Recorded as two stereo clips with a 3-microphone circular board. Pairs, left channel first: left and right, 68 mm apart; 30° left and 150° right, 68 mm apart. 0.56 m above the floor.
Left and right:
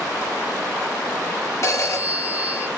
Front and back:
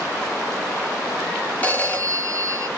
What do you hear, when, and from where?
1.6 s a phone ringing: 90° left, 0.9 m